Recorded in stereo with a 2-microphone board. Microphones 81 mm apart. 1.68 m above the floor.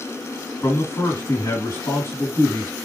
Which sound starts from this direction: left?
A man speaking, at 0.6 s.